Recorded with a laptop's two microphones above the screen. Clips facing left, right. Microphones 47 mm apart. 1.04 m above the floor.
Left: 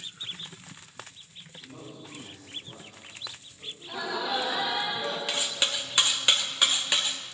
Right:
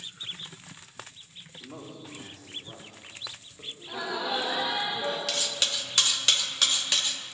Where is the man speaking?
70° right (ahead or behind), 3 m.